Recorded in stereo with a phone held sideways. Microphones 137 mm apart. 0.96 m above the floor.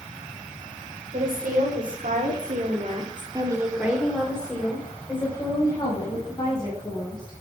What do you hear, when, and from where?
1.1 s a woman speaking: 85° right, 3.5 m; by 7.3 s 30° left (ahead or behind), 7 m